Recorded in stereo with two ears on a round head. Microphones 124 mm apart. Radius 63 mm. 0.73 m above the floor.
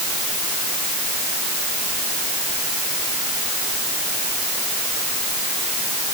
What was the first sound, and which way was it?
Only background noise.